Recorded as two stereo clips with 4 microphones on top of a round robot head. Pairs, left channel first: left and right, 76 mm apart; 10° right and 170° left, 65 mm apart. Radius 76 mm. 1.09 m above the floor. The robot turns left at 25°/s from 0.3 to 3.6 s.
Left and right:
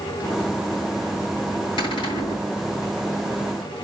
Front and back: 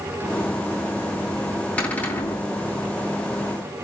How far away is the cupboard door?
About 4 m.